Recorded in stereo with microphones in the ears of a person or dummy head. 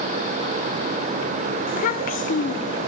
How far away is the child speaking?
About 1.4 m.